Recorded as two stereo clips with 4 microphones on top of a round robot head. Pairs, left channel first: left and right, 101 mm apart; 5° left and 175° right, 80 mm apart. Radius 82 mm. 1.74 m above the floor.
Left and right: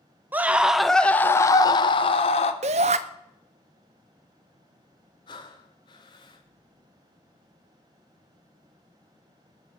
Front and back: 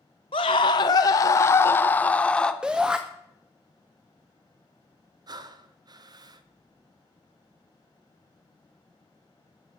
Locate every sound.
0.3 s a scream: 25° right, 0.9 m; by 2.5 s 80° left, 1.1 m
2.6 s a shout: 90° right, 0.7 m
5.3 s breathing: 145° left, 0.9 m